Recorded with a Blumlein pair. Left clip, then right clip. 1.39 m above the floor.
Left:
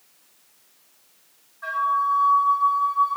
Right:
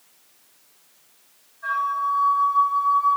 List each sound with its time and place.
1.6 s a flute: 60° left, 0.5 m